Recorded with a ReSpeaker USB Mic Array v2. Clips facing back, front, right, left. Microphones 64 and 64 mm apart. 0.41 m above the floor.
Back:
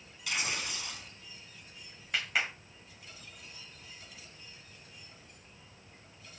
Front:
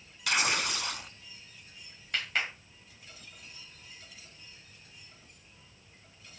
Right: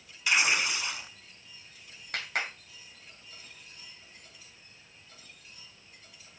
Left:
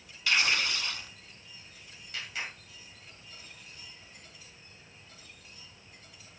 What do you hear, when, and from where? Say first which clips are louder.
0.3 s tearing paper: front 6 dB, right 1 dB; 15° right, 0.7 m
2.1 s a clap: even, right 5 dB; 100° right, 1.8 m